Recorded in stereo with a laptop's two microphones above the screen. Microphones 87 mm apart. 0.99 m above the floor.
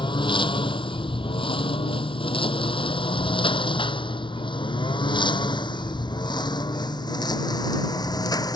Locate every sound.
0.0 s a lawn mower: 65° left (ahead or behind); by 8.6 s 50° left (ahead or behind)